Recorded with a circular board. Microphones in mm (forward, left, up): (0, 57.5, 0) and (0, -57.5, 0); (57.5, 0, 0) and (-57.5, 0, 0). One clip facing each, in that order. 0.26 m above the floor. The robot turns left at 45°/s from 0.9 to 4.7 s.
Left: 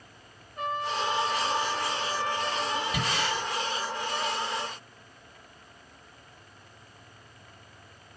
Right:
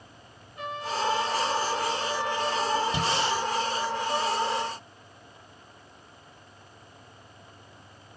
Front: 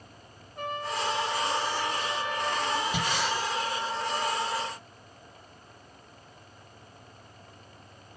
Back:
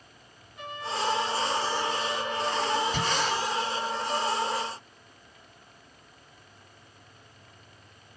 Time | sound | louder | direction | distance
0.6 | a trumpet | left 1 dB, front 1 dB | 40° left | 3.5 m
2.9 | breathing | right 3 dB, back 1 dB | 70° right | 1.8 m